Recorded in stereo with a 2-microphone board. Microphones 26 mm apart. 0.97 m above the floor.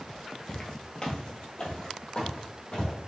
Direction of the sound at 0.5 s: 30° left (ahead or behind).